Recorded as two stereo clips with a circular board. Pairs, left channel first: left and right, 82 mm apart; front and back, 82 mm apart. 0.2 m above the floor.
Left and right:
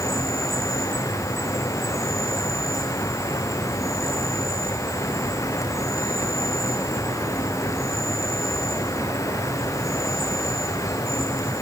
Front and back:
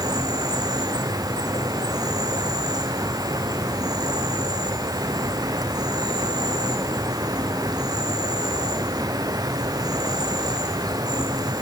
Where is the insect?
140° left, 2 m.